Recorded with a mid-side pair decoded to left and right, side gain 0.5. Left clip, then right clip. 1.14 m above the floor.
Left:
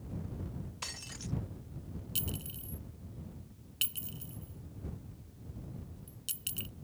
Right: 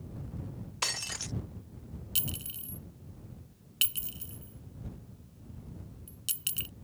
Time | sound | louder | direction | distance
0.8 | breaking glass | right 10 dB | 55° right | ?
2.1 | a clink | right 4 dB | 35° right | ?